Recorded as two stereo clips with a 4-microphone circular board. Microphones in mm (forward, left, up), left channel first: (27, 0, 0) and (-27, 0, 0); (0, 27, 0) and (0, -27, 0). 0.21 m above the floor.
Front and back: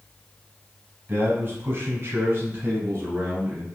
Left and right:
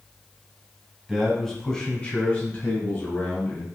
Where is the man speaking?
Straight behind, 1.3 m; by 3.7 s 135° left, 2.5 m.